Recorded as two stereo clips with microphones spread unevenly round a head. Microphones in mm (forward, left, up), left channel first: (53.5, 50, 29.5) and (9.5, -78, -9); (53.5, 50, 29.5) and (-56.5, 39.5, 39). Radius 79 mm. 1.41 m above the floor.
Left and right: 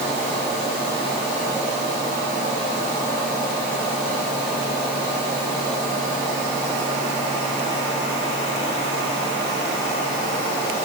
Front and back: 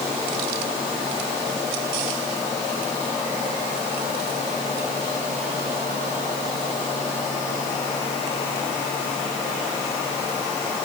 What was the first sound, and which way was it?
Only background noise.